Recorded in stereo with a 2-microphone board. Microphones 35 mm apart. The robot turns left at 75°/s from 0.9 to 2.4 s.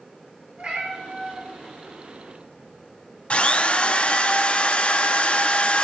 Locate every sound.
0.6 s a cat meowing: 40° right (ahead or behind), 3.5 m; by 4.3 s 70° left (ahead or behind), 3.5 m
3.3 s a drill: 40° left (ahead or behind), 0.6 m